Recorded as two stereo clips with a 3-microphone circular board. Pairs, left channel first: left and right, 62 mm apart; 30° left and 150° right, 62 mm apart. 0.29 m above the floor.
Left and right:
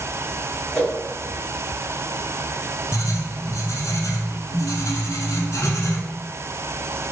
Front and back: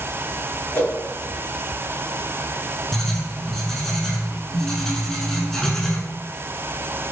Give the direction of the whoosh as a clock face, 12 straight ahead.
11 o'clock.